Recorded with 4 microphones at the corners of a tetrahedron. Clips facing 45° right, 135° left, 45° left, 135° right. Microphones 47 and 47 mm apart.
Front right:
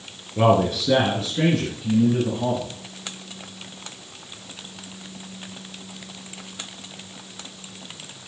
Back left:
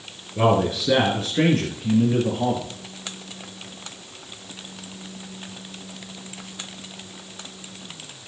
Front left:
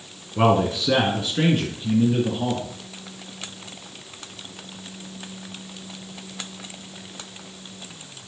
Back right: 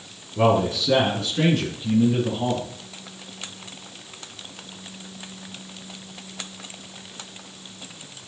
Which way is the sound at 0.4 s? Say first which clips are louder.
Front right 1 dB, even; 40° left.